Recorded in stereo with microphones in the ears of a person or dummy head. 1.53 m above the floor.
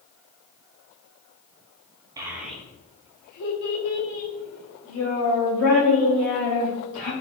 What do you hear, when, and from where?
2.2 s a child speaking: 15° right (ahead or behind), 0.6 m; by 7.1 s 75° left (ahead or behind), 2.5 m